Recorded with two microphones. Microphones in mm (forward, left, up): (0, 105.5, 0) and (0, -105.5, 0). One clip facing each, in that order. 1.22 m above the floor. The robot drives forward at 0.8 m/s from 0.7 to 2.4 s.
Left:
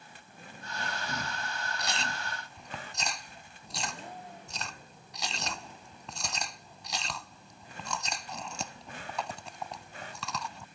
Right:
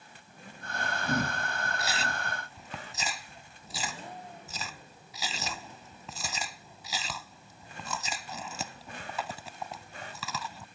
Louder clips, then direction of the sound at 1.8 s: Right 2 dB; 5° right (ahead or behind).